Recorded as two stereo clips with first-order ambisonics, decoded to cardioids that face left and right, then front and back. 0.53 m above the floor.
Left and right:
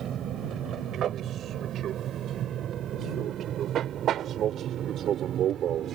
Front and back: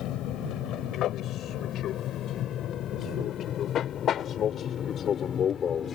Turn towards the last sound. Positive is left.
turn(degrees=-50)